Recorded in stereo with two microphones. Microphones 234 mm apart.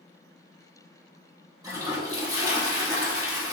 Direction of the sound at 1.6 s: 15° right (ahead or behind).